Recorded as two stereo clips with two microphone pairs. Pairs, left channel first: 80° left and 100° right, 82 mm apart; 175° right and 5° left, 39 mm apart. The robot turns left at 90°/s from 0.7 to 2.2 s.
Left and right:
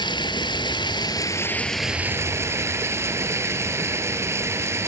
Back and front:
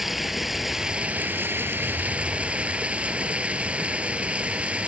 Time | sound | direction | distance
0.0 | running water | 85° left | 1.0 m